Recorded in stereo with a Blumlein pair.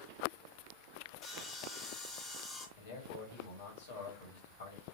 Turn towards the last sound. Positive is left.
turn(degrees=60)